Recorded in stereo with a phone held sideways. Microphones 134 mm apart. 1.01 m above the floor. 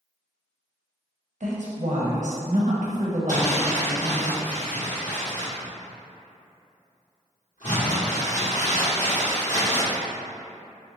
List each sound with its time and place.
1.4 s a woman speaking: 65° right (ahead or behind), 0.9 m
3.3 s crumpling: 60° left (ahead or behind), 1.8 m